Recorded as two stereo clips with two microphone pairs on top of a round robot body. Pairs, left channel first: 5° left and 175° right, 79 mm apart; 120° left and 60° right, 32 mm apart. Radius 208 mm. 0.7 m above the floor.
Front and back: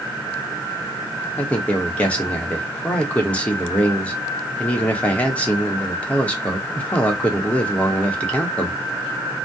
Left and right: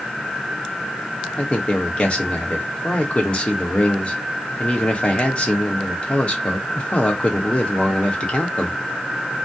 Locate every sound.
1.4 s a man speaking: 75° left, 1.1 m